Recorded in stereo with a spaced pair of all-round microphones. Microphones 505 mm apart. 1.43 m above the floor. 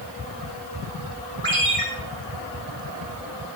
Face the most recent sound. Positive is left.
turn(degrees=-80)